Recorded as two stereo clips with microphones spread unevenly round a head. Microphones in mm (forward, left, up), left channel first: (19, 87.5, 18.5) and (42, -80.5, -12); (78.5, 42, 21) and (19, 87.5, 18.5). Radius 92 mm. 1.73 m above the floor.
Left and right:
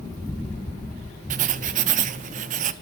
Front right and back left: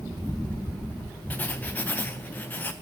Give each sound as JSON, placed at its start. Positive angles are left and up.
{"t": 1.3, "sound": "writing", "azimuth_deg": -85, "distance_m": 0.5}